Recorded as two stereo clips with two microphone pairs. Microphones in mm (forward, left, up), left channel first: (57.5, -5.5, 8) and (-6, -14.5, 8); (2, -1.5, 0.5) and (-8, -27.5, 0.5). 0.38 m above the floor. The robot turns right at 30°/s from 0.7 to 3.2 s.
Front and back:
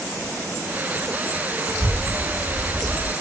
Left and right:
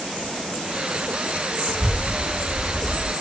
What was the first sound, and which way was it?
A child speaking, 20° right.